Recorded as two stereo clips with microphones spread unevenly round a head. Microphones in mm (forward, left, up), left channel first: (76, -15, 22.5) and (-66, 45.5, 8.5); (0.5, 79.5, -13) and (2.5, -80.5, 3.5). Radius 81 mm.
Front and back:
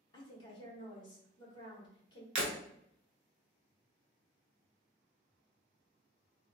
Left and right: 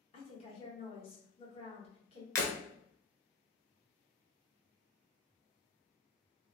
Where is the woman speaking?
40° left, 1.2 m.